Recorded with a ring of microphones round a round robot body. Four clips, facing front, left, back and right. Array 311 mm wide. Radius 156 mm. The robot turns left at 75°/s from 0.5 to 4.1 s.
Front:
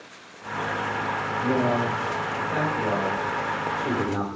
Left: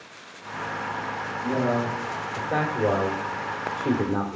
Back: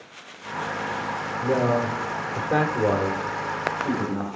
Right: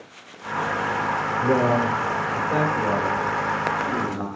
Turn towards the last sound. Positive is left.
turn(degrees=65)